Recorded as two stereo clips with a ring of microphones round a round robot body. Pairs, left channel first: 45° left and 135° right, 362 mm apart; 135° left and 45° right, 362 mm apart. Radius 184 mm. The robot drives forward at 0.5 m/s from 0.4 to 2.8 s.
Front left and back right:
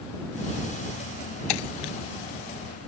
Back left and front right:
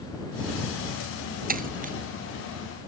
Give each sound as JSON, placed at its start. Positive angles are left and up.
{"t": 1.5, "sound": "breaking glass", "azimuth_deg": 25}